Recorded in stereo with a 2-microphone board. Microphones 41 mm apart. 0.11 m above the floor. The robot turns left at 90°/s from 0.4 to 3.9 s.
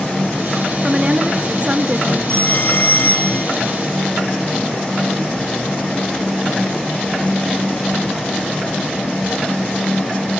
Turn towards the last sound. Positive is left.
turn(degrees=-5)